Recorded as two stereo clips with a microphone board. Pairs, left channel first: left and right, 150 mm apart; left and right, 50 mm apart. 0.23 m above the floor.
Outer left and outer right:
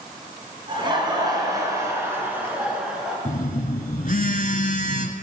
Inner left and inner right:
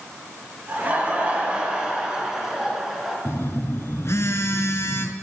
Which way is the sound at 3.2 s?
60° left (ahead or behind).